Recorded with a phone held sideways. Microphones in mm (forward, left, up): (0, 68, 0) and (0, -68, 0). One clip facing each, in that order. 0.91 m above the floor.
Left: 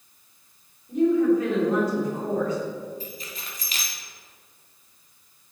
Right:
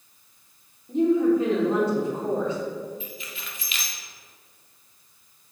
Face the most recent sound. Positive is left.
turn(degrees=40)  # may be behind; listen again after turning